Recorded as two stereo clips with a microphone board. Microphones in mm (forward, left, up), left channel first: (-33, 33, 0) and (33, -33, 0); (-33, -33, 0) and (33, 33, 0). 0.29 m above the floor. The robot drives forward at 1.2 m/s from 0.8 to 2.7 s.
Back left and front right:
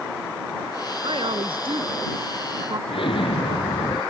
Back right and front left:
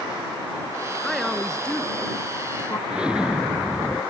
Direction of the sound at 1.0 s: 45° right.